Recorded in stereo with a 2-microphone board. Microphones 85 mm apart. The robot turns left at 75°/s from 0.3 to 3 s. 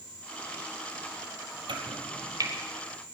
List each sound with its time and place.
1.7 s chopping: 70° right (ahead or behind), 1.5 m; by 2.5 s 40° right (ahead or behind), 1.5 m